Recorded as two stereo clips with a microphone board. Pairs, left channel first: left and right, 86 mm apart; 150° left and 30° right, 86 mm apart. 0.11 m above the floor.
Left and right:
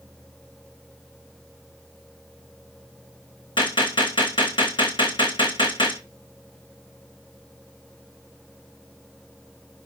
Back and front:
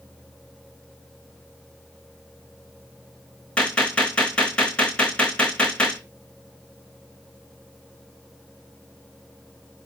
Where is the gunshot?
75° left, 2.5 m.